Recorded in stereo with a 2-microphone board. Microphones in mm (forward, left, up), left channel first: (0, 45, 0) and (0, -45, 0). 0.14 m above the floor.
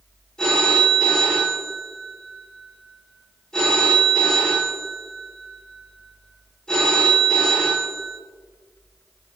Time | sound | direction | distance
0.4 | a phone ringing | 10° left (ahead or behind) | 6 m